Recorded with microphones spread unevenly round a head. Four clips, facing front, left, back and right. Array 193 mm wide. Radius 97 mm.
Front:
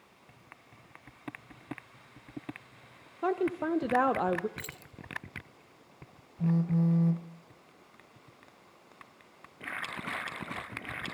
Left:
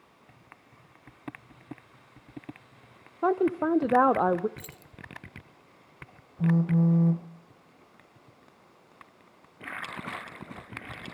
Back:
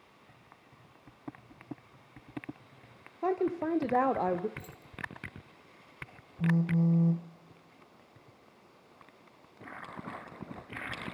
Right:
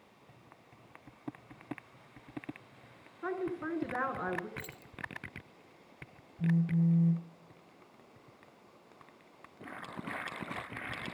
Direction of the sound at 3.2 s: 90° left.